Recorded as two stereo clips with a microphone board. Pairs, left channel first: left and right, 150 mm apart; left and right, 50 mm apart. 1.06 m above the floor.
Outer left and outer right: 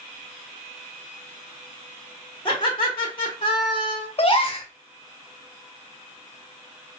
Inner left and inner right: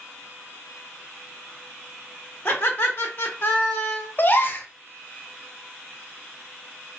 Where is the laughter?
35° left (ahead or behind), 1.1 m.